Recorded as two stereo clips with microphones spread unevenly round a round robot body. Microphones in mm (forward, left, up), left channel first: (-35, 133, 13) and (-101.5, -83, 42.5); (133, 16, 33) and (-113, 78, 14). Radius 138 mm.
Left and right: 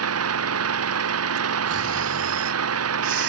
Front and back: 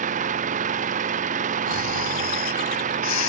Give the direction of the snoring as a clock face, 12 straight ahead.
2 o'clock.